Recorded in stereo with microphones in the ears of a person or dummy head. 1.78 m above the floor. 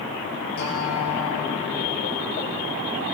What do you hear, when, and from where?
0.6 s a guitar: 60° left (ahead or behind), 10 m